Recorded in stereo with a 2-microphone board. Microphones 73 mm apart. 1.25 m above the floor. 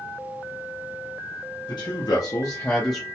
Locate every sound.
1.7 s a man speaking: 75° left (ahead or behind), 0.9 m; by 3.0 s centre (ahead or behind), 0.6 m